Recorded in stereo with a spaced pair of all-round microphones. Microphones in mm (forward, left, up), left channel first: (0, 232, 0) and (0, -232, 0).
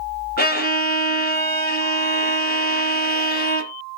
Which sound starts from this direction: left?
A violin, at 0.4 s.